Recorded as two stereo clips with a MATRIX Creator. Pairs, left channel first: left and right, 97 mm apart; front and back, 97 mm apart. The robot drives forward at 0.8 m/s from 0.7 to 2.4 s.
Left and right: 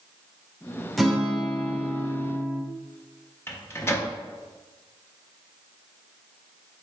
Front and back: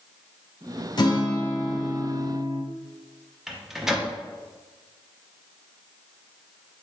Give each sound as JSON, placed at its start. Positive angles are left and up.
{"t": 1.0, "sound": "a guitar", "azimuth_deg": 0, "distance_m": 0.8}
{"t": 3.5, "sound": "a microwave", "azimuth_deg": 100, "distance_m": 0.6}